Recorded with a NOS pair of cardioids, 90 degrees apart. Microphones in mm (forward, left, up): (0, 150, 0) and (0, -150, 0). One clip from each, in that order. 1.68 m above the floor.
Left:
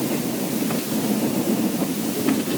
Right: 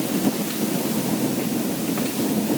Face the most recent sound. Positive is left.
No sound to turn to.